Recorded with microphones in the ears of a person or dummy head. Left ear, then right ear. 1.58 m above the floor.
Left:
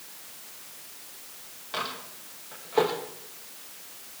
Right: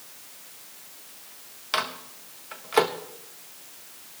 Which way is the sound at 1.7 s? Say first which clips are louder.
Right 5 dB; 60° right (ahead or behind).